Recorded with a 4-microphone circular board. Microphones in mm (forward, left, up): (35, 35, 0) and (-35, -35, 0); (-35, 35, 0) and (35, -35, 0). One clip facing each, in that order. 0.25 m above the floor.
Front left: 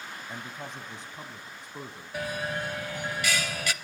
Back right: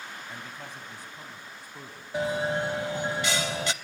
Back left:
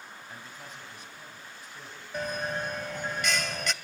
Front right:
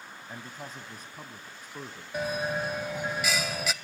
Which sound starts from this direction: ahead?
A man speaking, at 0.3 s.